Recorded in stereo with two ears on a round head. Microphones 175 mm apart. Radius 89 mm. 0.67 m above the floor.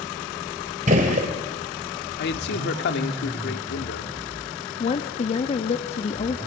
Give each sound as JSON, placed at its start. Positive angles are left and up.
{"t": 0.9, "sound": "a gunshot", "side_deg": -40, "distance_m": 2.5}
{"t": 2.2, "sound": "a man speaking", "side_deg": 60, "distance_m": 1.6}
{"t": 4.8, "sound": "a woman speaking", "side_deg": 30, "distance_m": 0.9}